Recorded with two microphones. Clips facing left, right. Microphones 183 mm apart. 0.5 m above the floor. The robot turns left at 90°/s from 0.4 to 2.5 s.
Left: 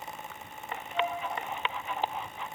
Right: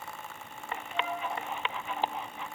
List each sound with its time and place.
0.9 s a flute: 25° right (ahead or behind), 1.1 m; by 1.2 s 50° right (ahead or behind), 1.1 m